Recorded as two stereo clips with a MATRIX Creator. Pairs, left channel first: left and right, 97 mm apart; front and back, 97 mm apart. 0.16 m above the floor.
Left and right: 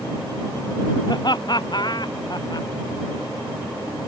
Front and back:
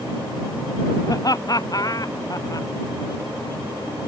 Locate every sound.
1.1 s laughter: 50° left